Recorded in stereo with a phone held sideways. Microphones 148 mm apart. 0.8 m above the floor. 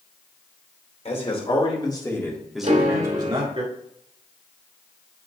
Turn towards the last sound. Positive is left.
turn(degrees=-55)  # may be behind; listen again after turning